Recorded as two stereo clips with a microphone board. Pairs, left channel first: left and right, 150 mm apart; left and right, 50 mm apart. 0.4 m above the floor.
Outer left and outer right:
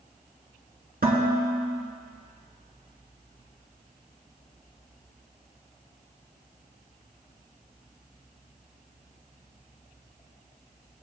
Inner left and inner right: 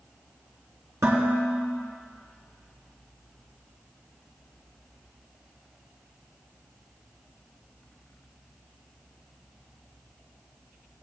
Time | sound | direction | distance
1.0 | dishes clattering | 75° right (ahead or behind) | 3.5 m